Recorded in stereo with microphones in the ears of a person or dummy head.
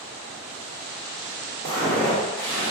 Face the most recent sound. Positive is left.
turn(degrees=-5)  # may be behind; listen again after turning